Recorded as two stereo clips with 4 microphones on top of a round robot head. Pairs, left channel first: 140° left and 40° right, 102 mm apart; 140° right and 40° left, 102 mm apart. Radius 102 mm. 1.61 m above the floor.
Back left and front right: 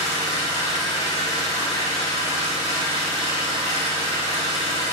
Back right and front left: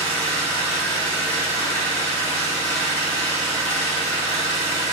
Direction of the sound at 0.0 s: 160° right.